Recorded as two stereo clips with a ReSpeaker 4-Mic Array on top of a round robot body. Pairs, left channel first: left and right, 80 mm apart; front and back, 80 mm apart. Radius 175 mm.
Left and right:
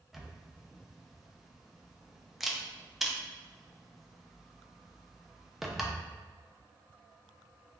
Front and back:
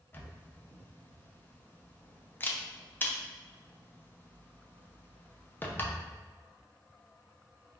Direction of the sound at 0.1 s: 5° right.